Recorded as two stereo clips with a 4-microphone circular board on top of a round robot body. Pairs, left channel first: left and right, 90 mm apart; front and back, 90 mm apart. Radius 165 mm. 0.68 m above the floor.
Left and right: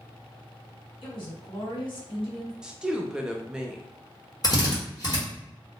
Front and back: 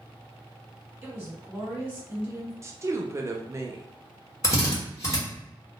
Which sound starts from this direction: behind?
A woman speaking, at 2.6 s.